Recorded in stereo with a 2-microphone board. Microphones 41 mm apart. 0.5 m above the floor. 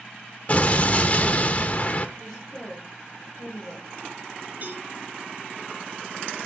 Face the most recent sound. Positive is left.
turn(degrees=-40)  # may be behind; listen again after turning